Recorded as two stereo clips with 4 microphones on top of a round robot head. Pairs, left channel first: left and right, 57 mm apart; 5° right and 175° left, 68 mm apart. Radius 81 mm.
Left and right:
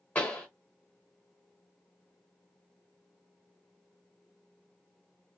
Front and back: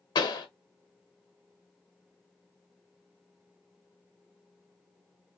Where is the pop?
15° left, 1.0 m.